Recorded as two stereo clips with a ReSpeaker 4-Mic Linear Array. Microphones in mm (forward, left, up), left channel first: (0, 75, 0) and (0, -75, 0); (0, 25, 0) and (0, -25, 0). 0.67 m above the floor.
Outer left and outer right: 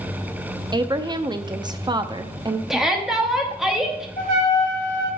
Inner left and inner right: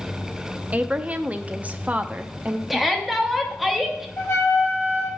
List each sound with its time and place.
0.7 s a woman speaking: 30° right (ahead or behind), 0.5 m
2.7 s a shout: centre (ahead or behind), 1.1 m
4.2 s a trumpet: 70° left (ahead or behind), 3.5 m